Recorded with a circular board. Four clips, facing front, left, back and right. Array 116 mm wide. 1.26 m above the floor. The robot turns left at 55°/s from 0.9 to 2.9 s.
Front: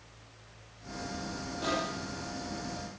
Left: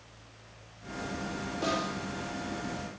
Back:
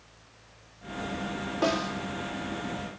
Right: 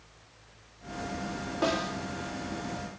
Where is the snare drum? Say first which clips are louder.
Right 3 dB, back 5 dB; 140° right, 3 m; by 1.9 s 160° right, 3 m.